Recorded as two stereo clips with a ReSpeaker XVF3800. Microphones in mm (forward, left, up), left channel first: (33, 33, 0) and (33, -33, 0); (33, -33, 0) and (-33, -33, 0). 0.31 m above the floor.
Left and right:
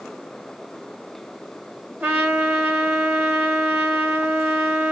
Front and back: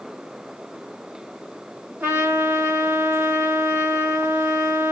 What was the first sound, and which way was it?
A trumpet, 130° right.